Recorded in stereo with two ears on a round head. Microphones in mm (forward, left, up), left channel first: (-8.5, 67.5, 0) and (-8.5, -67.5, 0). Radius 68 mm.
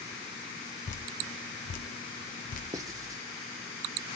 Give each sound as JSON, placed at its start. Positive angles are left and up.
{"t": 0.9, "sound": "dripping", "side_deg": 50, "distance_m": 1.1}
{"t": 2.7, "sound": "writing", "side_deg": -25, "distance_m": 1.1}